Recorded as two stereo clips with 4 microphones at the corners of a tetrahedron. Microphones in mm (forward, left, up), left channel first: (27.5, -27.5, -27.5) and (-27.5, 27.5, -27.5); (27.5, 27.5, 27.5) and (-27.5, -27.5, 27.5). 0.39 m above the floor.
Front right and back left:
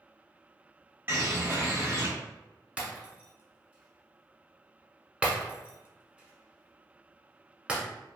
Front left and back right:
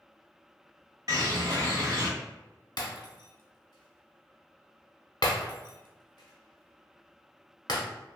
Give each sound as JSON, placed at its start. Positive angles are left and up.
{"t": 1.1, "sound": "a bird", "azimuth_deg": -170, "distance_m": 0.8}
{"t": 2.8, "sound": "breaking glass", "azimuth_deg": 60, "distance_m": 0.8}